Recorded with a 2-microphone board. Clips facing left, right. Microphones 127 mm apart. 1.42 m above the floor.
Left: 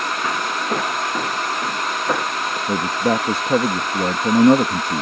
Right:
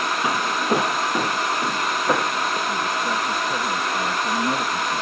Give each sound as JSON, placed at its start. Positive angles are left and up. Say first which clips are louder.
{"t": 0.2, "sound": "footsteps", "louder": "right 2 dB", "side_deg": -15}
{"t": 2.7, "sound": "a man speaking", "louder": "left 5 dB", "side_deg": 70}